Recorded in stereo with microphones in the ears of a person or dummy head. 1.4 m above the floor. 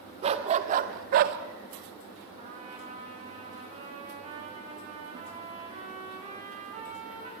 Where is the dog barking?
30° right (ahead or behind), 1.9 m; by 1.4 s 45° right (ahead or behind), 1.1 m.